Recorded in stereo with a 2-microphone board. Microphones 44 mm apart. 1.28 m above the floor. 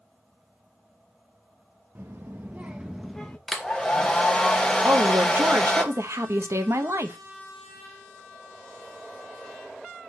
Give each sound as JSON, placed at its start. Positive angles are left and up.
{"t": 1.9, "sound": "a child speaking", "side_deg": -60, "distance_m": 0.8}
{"t": 3.5, "sound": "a hair dryer", "side_deg": 10, "distance_m": 1.3}
{"t": 4.8, "sound": "a woman speaking", "side_deg": -80, "distance_m": 1.1}